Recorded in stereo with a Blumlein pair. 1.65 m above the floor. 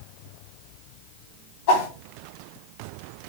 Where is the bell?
I don't hear a bell.